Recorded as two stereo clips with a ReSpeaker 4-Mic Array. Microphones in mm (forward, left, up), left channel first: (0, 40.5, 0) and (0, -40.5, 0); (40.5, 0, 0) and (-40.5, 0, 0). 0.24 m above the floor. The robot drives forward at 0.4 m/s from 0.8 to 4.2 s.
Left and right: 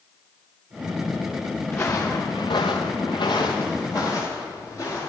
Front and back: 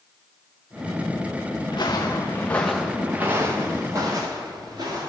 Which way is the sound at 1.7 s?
25° left.